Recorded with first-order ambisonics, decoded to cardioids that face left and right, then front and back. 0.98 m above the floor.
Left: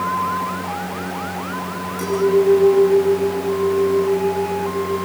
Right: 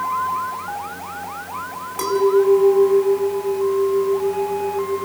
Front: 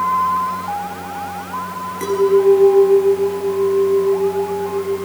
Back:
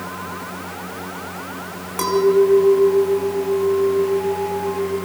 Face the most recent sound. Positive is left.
turn(degrees=-155)